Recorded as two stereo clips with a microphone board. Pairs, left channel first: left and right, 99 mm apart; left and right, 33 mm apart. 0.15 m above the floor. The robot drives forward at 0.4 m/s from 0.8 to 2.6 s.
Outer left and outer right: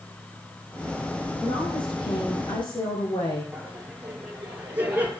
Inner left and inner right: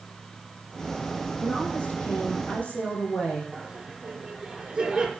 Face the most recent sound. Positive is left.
turn(degrees=-15)  # may be behind; listen again after turning